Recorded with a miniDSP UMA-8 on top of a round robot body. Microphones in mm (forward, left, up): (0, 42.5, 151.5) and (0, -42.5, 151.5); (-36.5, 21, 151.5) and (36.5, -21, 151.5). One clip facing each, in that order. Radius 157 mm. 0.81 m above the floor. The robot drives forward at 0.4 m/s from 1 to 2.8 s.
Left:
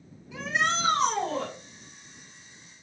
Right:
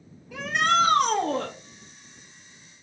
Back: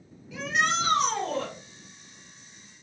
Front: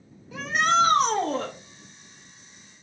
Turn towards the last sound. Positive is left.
turn(degrees=-105)